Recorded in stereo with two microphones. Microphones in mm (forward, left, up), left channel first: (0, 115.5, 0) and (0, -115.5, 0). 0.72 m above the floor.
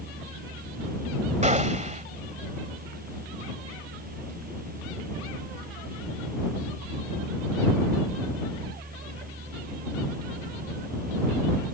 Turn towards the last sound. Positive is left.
turn(degrees=-30)  # may be behind; listen again after turning